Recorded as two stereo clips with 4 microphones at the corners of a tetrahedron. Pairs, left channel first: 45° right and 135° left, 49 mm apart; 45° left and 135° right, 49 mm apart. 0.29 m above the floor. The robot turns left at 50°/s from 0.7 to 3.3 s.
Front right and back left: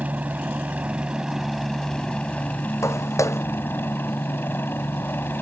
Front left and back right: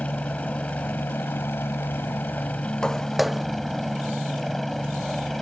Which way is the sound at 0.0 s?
90° left.